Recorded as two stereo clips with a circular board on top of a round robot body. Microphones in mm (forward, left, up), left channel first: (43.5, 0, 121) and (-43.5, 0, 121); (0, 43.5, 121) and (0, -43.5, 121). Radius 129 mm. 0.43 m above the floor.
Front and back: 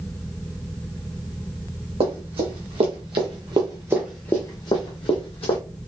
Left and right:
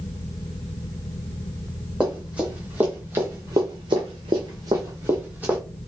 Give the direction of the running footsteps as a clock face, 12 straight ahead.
6 o'clock.